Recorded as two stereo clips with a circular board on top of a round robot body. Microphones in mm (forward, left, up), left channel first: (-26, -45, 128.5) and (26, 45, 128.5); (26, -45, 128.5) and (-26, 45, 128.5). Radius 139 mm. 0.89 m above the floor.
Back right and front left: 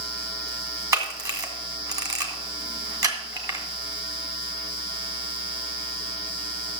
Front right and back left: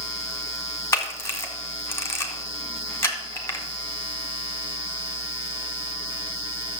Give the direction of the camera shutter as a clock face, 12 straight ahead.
12 o'clock.